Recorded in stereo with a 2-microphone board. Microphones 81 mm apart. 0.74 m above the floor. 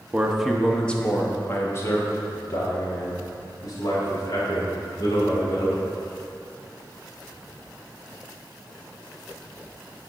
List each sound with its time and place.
0.1 s a man speaking: 15° right (ahead or behind), 0.8 m; by 5.8 s 55° left (ahead or behind), 3.5 m